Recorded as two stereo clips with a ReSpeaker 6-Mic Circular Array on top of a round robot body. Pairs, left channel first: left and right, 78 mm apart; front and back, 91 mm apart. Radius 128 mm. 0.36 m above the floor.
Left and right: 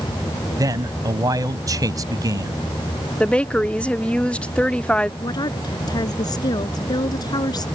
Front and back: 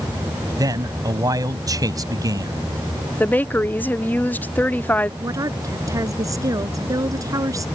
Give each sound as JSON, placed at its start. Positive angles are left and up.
{"t": 0.6, "sound": "a man speaking", "azimuth_deg": -130}
{"t": 3.2, "sound": "a woman speaking", "azimuth_deg": 35}
{"t": 5.2, "sound": "a woman speaking", "azimuth_deg": 125}